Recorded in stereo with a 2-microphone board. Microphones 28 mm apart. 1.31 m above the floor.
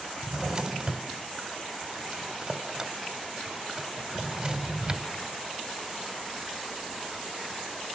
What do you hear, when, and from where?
0.2 s a drawer: 25° right (ahead or behind), 2.0 m